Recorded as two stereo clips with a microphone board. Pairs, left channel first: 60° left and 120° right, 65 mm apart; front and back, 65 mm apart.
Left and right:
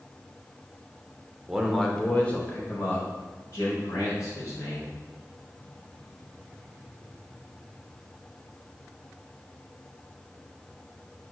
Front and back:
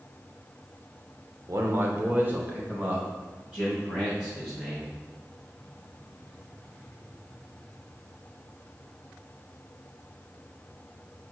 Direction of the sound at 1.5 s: 165° left.